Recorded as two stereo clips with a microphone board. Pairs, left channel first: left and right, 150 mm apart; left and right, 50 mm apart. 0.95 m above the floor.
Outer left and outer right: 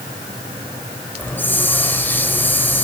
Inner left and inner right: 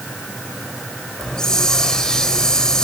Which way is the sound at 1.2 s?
15° left (ahead or behind).